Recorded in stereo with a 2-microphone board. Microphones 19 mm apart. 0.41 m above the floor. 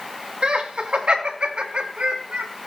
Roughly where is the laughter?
Right.